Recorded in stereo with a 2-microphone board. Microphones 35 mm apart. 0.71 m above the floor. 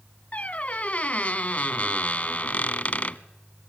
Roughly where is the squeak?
Left.